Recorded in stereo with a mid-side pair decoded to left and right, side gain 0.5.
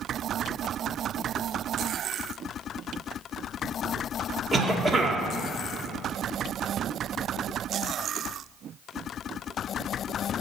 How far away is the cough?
About 2 m.